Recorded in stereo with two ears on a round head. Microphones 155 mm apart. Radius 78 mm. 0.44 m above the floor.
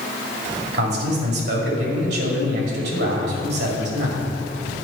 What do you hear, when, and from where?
0.7 s a man speaking: 65° right (ahead or behind), 2 m